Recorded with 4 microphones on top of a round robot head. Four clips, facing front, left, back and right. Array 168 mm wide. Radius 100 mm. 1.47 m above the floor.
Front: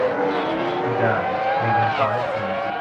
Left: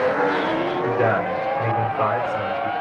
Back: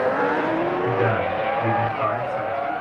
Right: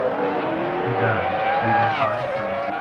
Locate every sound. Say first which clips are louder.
0.8 s a man speaking: left 2 dB, front 1 dB; 80° left, 6 m; by 2.7 s 55° left, 3.5 m